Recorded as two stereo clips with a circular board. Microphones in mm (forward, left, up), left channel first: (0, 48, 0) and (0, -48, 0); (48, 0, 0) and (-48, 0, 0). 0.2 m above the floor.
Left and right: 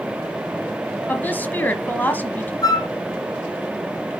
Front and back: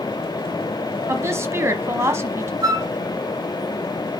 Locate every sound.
1.1 s a woman speaking: 145° left, 1.1 m
2.6 s a flute: 135° left, 0.7 m